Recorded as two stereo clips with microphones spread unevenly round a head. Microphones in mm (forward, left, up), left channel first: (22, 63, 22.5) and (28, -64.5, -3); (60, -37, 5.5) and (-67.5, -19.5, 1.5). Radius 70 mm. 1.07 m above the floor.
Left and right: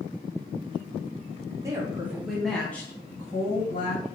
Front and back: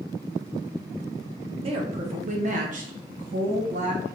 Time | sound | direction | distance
1.6 | a woman speaking | 150° right | 1.3 m